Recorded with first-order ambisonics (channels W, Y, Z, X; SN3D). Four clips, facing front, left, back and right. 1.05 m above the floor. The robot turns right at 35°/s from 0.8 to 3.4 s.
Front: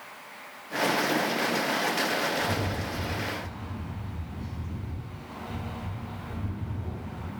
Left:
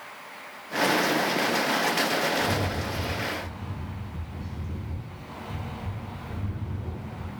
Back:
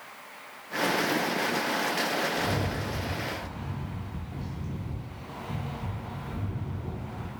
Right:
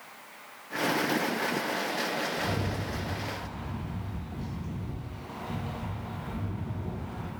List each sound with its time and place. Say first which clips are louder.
2.4 s a rattle: left 5 dB, even; 170° right, 0.7 m; by 7.3 s 135° right, 0.7 m